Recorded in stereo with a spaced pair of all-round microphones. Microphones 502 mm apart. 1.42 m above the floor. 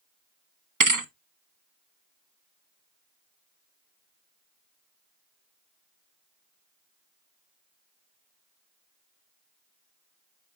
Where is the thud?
40° right (ahead or behind), 1.0 m.